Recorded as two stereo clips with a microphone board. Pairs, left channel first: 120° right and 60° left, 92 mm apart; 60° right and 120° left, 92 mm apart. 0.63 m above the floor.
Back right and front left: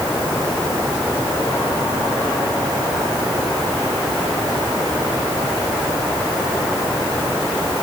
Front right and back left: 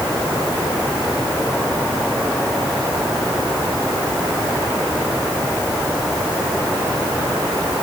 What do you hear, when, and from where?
Only background noise.